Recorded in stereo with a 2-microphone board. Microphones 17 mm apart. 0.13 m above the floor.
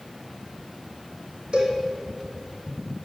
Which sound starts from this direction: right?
A cowbell, at 1.5 s.